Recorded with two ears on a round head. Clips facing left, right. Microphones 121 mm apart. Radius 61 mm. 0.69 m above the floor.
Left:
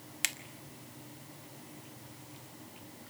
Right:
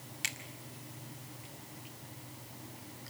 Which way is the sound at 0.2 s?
65° left (ahead or behind).